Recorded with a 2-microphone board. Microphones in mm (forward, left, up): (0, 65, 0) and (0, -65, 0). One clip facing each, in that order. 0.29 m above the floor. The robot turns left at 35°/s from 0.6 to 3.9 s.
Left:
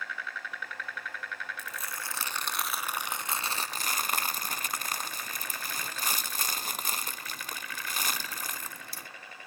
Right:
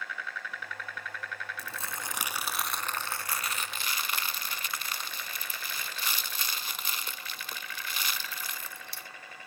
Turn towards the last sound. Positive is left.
turn(degrees=135)